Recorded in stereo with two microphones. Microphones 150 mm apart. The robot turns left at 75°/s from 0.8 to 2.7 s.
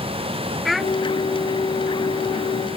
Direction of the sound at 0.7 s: Centre (ahead or behind).